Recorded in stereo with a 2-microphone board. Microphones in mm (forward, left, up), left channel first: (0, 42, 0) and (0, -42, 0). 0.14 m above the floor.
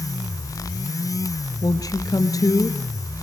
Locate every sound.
1.6 s a woman speaking: 45° left (ahead or behind), 1.9 m